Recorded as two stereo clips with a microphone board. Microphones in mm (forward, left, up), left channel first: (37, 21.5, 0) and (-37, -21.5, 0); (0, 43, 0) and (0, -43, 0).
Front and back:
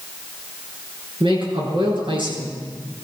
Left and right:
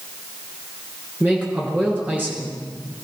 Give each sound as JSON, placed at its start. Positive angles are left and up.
{"t": 1.2, "sound": "a man speaking", "azimuth_deg": -160, "distance_m": 6.0}